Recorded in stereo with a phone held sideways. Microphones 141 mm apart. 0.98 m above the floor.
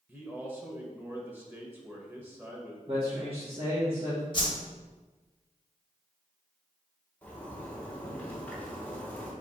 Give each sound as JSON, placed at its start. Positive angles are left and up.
{"t": 0.1, "sound": "a man speaking", "side_deg": -15, "distance_m": 0.8}
{"t": 2.9, "sound": "a man speaking", "side_deg": -40, "distance_m": 1.3}
{"t": 4.3, "sound": "a whoosh", "side_deg": 35, "distance_m": 0.8}
{"t": 7.2, "sound": "a zipper", "side_deg": 10, "distance_m": 1.0}